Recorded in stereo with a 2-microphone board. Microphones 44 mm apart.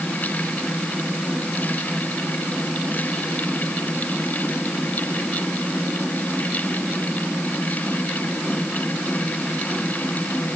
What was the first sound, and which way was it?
Only background noise.